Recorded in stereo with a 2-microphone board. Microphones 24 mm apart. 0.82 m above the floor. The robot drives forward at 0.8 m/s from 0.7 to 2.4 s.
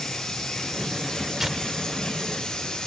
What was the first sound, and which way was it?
Running water, 30° left (ahead or behind).